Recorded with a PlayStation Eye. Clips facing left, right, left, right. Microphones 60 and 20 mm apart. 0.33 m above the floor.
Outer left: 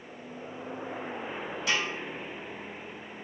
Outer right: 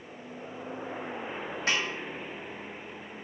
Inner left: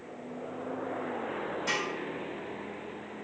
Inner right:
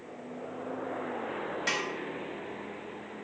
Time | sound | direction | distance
1.7 | a snare drum | 45° right (ahead or behind) | 1.0 m